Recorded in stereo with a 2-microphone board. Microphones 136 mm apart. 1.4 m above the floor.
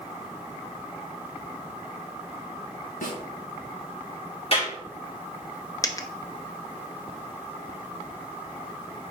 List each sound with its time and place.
3.0 s a snare drum: 80° left, 1.8 m
4.5 s a clap: 45° left (ahead or behind), 4 m
5.8 s a dropped coin: 25° left (ahead or behind), 0.7 m